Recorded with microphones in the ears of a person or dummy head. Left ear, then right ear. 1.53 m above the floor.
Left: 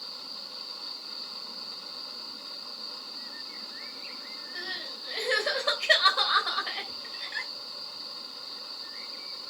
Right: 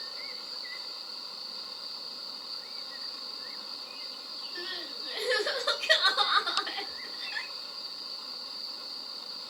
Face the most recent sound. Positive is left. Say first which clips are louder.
# left 2 dB
turn(degrees=10)  # may be behind; listen again after turning